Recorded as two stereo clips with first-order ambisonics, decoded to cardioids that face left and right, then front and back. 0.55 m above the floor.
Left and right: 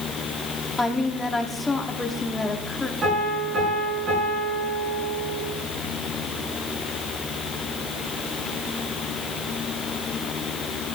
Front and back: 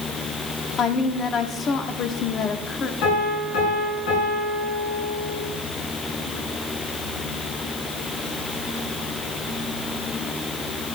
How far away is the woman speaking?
About 0.9 m.